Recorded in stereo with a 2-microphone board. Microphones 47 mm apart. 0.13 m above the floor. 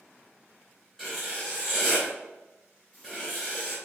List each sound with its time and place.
1.0 s writing: 10° left (ahead or behind), 2.0 m